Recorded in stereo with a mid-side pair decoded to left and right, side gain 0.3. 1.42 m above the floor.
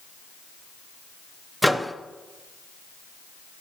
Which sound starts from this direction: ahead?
A microwave, at 1.6 s.